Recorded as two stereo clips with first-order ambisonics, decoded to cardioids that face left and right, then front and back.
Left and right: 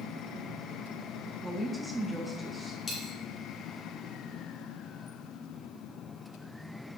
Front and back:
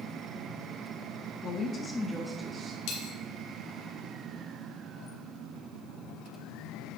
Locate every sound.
1.4 s a woman speaking: 5° right, 1.0 m; by 2.8 s 160° right, 1.0 m
2.9 s a dropped coin: 15° left, 2.5 m